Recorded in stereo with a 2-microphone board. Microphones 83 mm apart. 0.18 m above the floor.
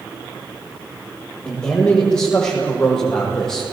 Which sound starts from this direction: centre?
A man speaking, at 1.4 s.